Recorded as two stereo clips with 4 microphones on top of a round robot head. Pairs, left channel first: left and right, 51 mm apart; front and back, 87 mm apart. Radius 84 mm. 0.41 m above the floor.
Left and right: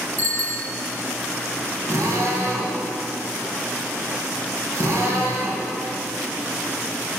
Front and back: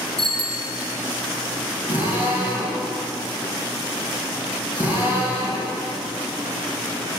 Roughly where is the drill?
Right.